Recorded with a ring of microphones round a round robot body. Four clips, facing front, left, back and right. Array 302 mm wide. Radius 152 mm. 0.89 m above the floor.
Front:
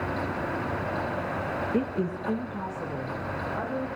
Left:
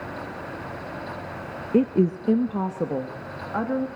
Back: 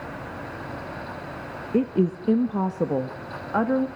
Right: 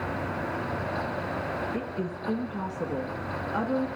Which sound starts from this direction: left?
A woman speaking, at 1.7 s.